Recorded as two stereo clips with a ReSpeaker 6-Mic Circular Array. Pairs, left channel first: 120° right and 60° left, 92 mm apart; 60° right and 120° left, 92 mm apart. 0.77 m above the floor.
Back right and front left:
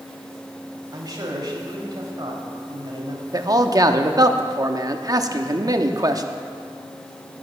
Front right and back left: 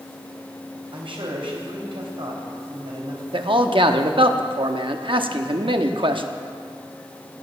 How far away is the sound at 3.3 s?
About 1.0 m.